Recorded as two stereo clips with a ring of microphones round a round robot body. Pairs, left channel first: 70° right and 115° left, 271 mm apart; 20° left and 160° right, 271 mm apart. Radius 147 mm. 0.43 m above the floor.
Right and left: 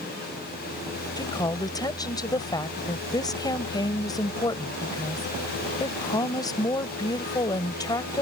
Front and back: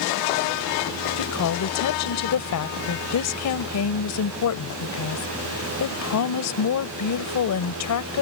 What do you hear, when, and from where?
1.2 s a woman speaking: 10° left